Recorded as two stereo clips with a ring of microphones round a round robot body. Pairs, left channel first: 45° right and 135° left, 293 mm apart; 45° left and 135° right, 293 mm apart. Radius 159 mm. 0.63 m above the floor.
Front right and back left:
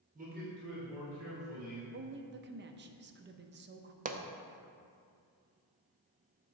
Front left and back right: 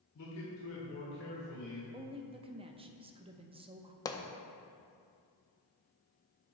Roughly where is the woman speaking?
Behind.